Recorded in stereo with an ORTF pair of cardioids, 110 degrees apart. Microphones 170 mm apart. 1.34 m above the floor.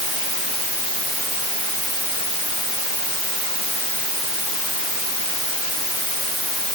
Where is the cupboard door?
I don't hear a cupboard door.